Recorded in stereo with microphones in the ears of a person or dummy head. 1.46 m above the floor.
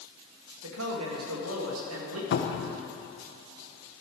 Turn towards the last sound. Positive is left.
turn(degrees=70)  # may be behind; listen again after turning